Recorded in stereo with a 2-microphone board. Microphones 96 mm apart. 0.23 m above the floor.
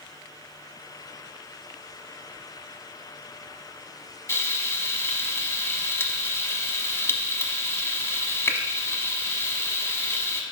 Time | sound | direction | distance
4.3 | frying | 25° left (ahead or behind) | 0.7 m